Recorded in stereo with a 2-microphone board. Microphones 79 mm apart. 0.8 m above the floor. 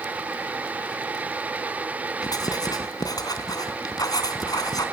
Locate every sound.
2.2 s writing: 55° left (ahead or behind), 3.5 m